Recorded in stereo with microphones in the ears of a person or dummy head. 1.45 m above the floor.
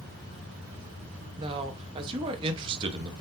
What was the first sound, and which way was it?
A man speaking, 30° right (ahead or behind).